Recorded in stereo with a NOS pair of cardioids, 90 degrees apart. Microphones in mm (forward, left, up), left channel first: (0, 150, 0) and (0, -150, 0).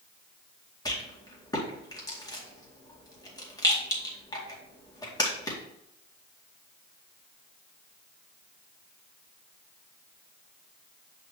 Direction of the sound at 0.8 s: 15° left.